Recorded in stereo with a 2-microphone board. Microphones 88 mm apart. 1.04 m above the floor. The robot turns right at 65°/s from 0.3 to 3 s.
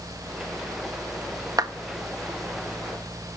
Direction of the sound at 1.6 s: 45° right (ahead or behind).